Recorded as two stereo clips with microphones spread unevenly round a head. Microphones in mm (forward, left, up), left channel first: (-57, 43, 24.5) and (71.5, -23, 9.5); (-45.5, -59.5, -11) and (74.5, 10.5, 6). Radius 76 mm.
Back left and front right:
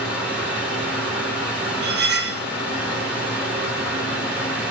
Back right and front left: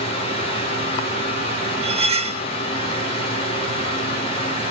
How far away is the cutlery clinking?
About 0.8 m.